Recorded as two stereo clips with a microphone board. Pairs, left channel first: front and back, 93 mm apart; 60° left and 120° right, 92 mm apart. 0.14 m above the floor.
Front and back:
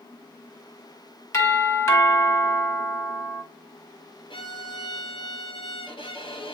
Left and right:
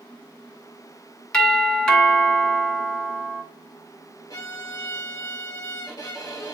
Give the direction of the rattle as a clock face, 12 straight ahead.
I don't hear a rattle.